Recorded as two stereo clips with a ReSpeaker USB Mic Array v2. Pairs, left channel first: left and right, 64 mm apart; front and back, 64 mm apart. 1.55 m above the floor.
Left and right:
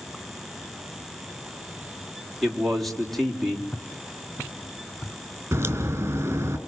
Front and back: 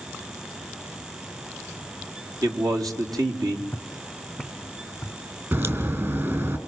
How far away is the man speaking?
About 4 m.